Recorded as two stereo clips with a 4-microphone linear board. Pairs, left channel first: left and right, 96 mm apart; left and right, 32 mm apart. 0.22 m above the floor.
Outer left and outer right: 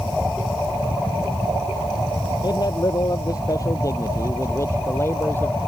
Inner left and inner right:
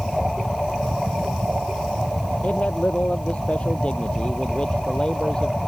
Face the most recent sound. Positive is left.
turn(degrees=25)  # may be behind; listen again after turning